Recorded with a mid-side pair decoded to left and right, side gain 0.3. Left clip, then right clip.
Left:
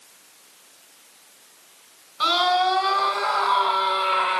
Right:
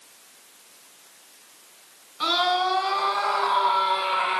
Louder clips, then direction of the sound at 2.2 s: Left 3 dB; 60° left.